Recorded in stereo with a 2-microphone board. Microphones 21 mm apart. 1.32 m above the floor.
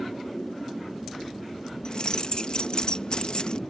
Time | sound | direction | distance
1.9 | keys jangling | 45° left (ahead or behind) | ?